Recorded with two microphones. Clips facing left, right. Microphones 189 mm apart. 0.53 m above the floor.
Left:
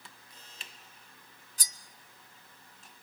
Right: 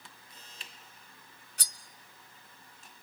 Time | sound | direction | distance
1.6 | cutlery clinking | 65° right (ahead or behind) | 0.8 m